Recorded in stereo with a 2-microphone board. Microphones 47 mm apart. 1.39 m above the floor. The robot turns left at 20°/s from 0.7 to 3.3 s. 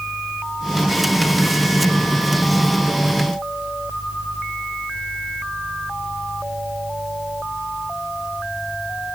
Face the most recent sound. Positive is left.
No sound to turn to.